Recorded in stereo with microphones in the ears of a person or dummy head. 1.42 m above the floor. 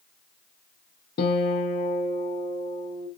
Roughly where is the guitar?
Left.